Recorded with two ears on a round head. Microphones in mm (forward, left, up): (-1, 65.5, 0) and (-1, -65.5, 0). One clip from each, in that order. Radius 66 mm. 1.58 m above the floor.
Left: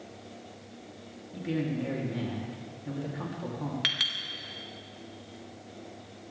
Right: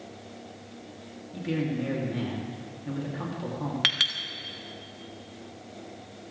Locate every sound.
1.3 s a man speaking: 5° right (ahead or behind), 3 m
3.8 s a clink: 15° right (ahead or behind), 1.6 m